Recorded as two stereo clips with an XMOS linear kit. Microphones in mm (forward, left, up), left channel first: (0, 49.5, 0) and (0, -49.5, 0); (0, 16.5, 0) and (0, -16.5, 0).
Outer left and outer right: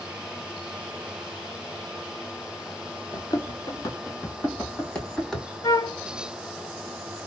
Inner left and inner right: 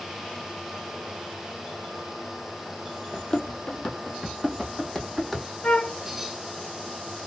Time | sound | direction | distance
3.1 | running footsteps | 40° left (ahead or behind) | 1.1 m
5.6 | a flute | 35° left (ahead or behind) | 0.5 m